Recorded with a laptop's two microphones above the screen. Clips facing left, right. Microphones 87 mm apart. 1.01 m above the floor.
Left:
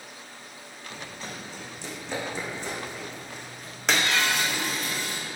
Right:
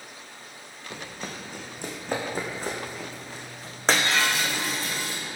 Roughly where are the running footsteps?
Right.